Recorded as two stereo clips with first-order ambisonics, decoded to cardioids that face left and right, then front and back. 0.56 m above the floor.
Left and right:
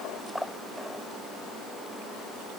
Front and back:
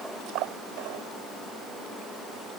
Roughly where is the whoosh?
I don't hear a whoosh.